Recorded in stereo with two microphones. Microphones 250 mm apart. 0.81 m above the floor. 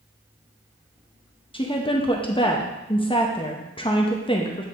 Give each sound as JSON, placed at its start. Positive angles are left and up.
{"t": 1.5, "sound": "a woman speaking", "side_deg": 20, "distance_m": 0.7}